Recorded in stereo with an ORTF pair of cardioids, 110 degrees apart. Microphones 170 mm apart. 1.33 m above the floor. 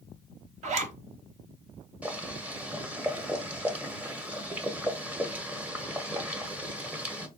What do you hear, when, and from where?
0.6 s a zipper: 45° right, 0.8 m
2.0 s boiling: 10° right, 0.8 m